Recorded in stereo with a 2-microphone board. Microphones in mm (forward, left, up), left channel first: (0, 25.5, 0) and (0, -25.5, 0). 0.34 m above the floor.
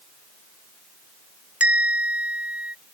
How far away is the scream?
No scream in this recording.